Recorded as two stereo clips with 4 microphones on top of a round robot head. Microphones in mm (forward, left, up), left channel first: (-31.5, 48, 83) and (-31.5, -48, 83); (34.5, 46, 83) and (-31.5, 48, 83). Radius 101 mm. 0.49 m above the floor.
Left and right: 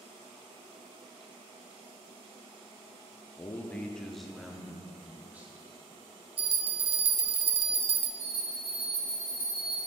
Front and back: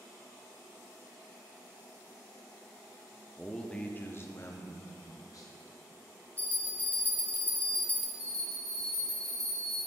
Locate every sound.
3.4 s a man speaking: 85° left, 0.7 m; by 5.5 s 20° right, 1.2 m
6.4 s a bell: 70° right, 0.5 m
8.2 s a bell: 25° right, 2 m